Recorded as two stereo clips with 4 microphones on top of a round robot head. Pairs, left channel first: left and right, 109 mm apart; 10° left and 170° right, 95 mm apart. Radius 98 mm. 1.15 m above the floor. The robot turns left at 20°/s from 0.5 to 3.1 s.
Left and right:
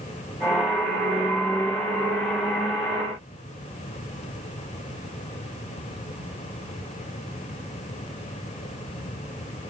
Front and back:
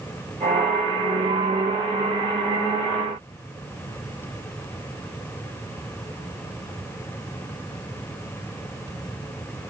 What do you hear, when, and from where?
Only background noise.